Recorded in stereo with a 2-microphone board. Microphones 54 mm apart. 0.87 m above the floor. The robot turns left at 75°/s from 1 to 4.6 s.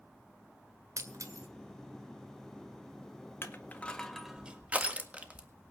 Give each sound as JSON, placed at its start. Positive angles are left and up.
{"t": 1.0, "sound": "breaking glass", "side_deg": -75, "distance_m": 1.7}
{"t": 3.4, "sound": "crushing", "side_deg": 45, "distance_m": 1.6}